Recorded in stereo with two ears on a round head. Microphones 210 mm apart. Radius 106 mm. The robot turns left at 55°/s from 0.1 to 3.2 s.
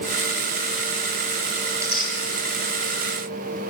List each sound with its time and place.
1.7 s tearing paper: 5° right (ahead or behind), 2 m; by 2.1 s 30° right (ahead or behind), 2 m